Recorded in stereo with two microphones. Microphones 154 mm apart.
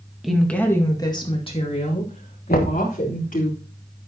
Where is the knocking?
75° left (ahead or behind), 1.5 m.